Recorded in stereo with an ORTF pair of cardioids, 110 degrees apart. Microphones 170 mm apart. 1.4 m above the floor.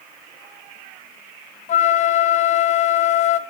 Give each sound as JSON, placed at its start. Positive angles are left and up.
{"t": 1.7, "sound": "a flute", "azimuth_deg": 45, "distance_m": 1.3}